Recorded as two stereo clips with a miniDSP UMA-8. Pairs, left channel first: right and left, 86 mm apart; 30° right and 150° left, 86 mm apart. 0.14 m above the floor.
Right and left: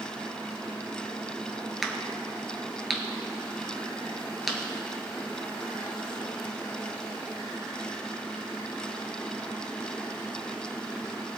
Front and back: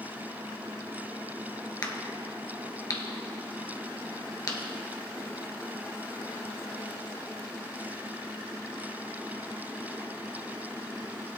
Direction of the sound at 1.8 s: Straight ahead.